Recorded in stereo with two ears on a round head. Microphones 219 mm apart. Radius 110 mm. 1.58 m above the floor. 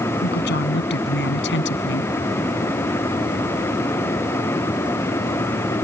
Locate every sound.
0.2 s a woman speaking: 45° left (ahead or behind); by 2.1 s 55° left (ahead or behind)